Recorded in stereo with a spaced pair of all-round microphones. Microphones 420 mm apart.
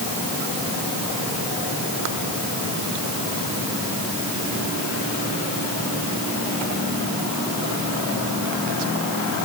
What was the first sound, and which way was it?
Only background noise.